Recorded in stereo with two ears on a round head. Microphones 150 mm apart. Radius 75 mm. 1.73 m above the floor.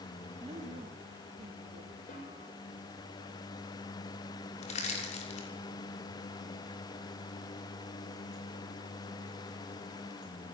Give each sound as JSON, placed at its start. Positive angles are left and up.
{"t": 0.4, "sound": "a woman speaking", "side_deg": -30, "distance_m": 3.5}
{"t": 2.1, "sound": "a snare drum", "side_deg": 45, "distance_m": 8.0}
{"t": 4.6, "sound": "crushing", "side_deg": 40, "distance_m": 6.0}